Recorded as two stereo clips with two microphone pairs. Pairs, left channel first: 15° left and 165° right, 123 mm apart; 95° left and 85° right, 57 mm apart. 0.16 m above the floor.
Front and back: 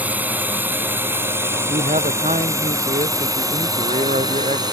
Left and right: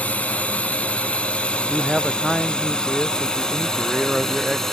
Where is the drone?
130° left; by 4.7 s 175° left.